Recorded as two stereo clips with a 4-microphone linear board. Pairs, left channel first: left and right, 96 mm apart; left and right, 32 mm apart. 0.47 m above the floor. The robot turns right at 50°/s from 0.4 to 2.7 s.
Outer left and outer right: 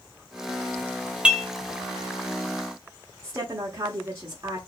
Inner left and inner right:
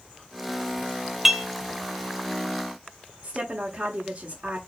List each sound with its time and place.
1.2 s dishes clattering: 10° right (ahead or behind), 0.6 m; by 1.5 s 5° right (ahead or behind), 0.6 m
3.2 s a woman speaking: 30° right (ahead or behind), 1.1 m